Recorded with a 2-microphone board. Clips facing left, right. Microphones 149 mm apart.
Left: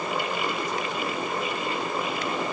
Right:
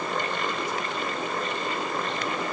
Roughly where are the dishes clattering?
I don't hear dishes clattering.